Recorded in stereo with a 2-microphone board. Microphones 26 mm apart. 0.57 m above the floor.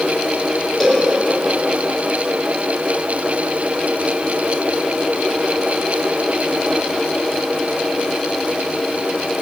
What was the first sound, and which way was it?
A cowbell, 15° left (ahead or behind).